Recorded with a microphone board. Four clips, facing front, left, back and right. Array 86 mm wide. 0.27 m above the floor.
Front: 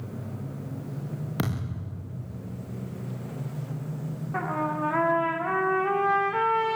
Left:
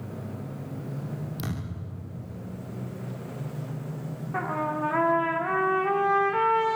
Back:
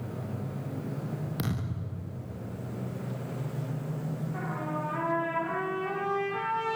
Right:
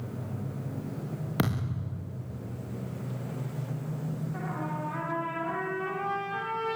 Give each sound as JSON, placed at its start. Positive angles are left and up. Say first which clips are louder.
{"t": 1.4, "sound": "a thud", "louder": "right 5 dB, front 2 dB", "azimuth_deg": -65, "distance_m": 9.5}
{"t": 4.3, "sound": "a trumpet", "louder": "left 11 dB, front 9 dB", "azimuth_deg": 45, "distance_m": 4.0}